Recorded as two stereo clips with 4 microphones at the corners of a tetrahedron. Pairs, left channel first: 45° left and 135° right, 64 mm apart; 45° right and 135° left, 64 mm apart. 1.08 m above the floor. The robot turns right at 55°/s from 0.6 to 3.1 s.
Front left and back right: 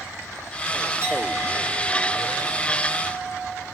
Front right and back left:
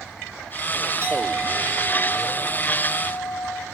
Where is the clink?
Straight behind, 5.5 m; by 3.6 s 65° right, 5.5 m.